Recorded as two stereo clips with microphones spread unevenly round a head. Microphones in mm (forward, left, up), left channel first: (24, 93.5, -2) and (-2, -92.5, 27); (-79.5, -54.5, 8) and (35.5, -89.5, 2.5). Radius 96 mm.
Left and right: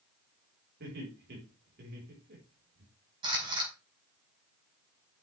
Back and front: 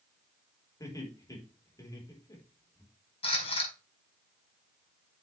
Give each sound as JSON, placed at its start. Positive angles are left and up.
{"t": 0.8, "sound": "laughter", "azimuth_deg": -135, "distance_m": 4.5}
{"t": 3.2, "sound": "a camera shutter", "azimuth_deg": -160, "distance_m": 5.5}